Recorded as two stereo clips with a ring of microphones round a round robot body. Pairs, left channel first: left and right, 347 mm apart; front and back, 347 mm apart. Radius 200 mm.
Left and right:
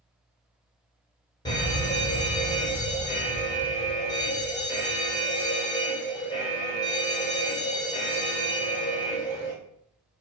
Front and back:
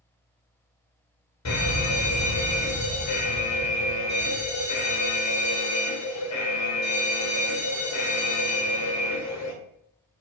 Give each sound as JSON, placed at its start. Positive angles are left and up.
{"t": 1.4, "sound": "a fire alarm", "azimuth_deg": 15, "distance_m": 2.5}